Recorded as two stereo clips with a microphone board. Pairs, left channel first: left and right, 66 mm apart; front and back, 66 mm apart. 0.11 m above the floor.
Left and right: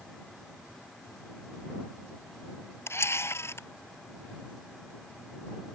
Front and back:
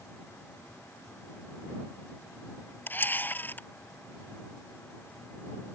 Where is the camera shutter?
55° left.